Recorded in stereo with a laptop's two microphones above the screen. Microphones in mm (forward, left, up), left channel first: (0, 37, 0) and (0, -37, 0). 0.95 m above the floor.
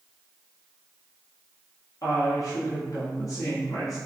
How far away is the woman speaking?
About 1.6 m.